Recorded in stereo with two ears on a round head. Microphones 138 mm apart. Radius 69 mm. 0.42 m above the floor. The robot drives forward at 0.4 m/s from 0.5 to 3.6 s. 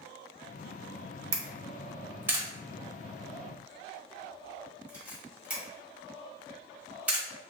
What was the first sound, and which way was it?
A camera shutter, 20° right (ahead or behind).